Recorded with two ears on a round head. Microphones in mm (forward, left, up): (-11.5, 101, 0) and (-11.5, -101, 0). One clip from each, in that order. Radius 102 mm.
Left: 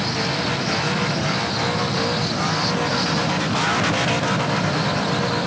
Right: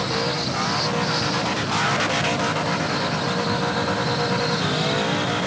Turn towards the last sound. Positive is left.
No sound to turn to.